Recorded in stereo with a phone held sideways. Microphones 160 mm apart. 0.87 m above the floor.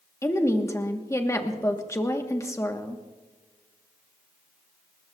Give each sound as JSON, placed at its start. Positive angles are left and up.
{"t": 0.2, "sound": "a woman speaking", "side_deg": 20, "distance_m": 1.4}